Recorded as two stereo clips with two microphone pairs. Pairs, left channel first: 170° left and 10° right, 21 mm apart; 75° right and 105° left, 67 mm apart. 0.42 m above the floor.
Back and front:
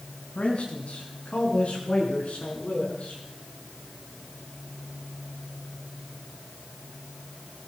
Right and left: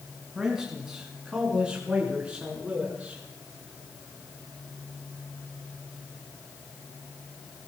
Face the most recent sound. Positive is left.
turn(degrees=175)